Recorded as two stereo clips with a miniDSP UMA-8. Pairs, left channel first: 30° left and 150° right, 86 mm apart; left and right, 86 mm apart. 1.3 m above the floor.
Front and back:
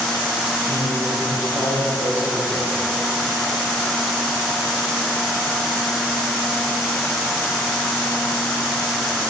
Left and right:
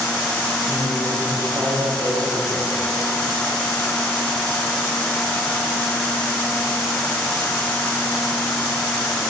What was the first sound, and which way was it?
A man speaking, 30° right.